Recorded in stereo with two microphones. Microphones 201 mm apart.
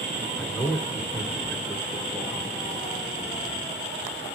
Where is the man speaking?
10° left (ahead or behind), 1.6 m.